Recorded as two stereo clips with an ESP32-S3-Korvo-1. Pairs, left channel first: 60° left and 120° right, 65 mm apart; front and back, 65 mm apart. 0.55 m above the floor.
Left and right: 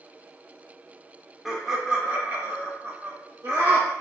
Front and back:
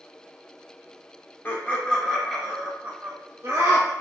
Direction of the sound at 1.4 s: 35° right.